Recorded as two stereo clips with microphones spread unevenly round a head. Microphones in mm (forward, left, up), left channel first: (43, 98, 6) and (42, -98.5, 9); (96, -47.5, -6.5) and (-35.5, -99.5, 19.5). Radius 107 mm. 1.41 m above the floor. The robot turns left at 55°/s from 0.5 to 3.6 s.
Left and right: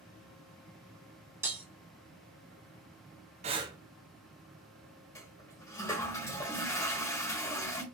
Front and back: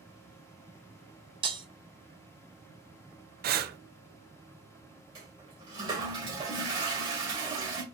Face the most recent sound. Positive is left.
turn(degrees=160)